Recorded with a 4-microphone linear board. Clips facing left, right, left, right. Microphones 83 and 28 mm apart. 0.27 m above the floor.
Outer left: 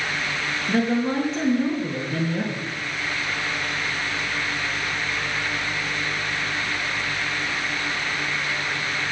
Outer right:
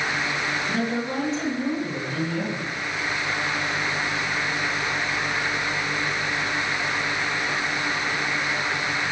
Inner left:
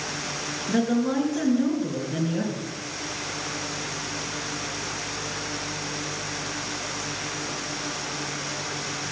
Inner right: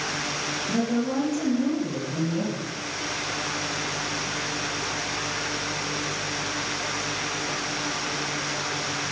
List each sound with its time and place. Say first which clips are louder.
0.7 s a woman speaking: outer left 9 dB, inner left 3 dB; 55° left (ahead or behind), 4.5 m